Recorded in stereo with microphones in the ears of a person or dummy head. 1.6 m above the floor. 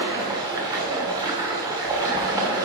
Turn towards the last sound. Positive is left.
turn(degrees=-15)  # may be behind; listen again after turning